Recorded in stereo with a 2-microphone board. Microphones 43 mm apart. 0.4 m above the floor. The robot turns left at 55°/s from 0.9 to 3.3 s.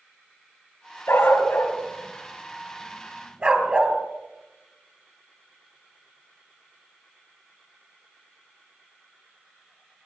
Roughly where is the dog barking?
Left.